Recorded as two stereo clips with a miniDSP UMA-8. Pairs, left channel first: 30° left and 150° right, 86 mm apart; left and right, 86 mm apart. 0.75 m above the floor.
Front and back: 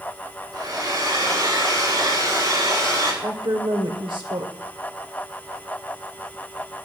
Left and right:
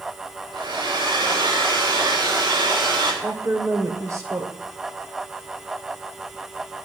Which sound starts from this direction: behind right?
A woman speaking, at 3.2 s.